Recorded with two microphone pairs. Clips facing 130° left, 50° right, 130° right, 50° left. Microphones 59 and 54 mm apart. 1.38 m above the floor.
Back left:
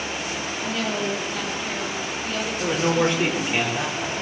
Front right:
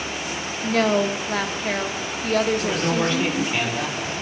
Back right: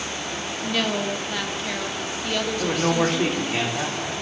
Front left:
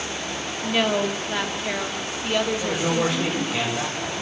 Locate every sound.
0.6 s a woman speaking: 20° right, 1.5 m
2.6 s a man speaking: 155° right, 4.5 m